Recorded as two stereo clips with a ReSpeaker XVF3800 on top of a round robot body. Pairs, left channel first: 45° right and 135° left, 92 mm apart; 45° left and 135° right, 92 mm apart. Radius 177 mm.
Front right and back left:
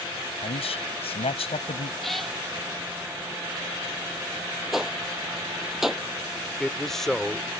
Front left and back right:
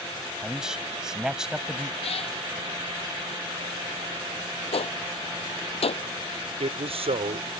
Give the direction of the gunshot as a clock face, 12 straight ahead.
10 o'clock.